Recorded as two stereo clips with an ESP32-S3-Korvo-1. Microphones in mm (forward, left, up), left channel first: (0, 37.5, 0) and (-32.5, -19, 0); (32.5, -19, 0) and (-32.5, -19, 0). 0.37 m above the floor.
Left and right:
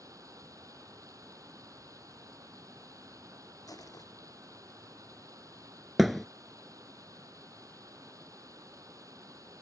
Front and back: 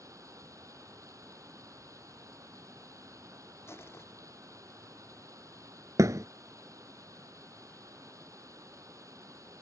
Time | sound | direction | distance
0.0 | running water | 150° right | ?
3.7 | crushing | 45° left | ?
6.0 | a thud | 150° left | ?